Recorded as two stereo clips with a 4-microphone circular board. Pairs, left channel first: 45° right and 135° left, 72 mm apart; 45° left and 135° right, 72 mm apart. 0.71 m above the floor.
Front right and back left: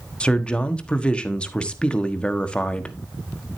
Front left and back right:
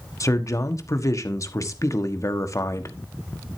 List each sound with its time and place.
0.2 s a man speaking: 30° left, 1.3 m